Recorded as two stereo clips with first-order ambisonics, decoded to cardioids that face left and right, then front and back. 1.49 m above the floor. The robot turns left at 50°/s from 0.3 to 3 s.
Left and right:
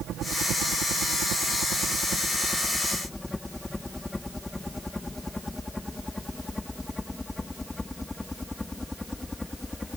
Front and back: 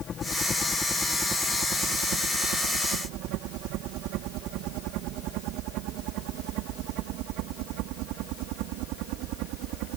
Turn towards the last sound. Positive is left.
turn(degrees=170)